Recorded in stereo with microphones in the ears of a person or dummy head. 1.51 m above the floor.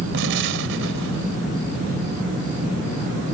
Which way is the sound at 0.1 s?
70° right (ahead or behind).